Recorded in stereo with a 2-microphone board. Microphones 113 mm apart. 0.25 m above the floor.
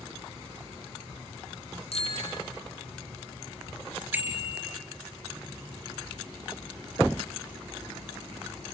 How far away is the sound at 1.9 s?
About 5 m.